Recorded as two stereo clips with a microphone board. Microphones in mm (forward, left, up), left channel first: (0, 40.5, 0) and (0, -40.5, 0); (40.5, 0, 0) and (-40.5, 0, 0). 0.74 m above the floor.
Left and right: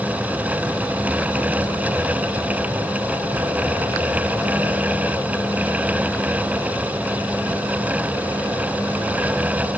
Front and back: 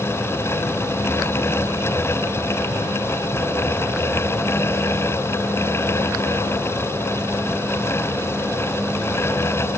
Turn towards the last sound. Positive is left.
No sound to turn to.